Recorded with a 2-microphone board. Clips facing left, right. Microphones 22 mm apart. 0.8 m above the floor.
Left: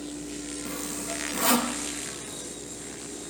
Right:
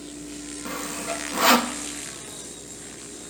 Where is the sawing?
35° right (ahead or behind), 0.8 m.